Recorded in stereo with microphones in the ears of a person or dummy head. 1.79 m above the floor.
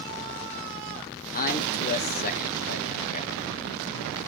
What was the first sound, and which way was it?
A man speaking, 50° left (ahead or behind).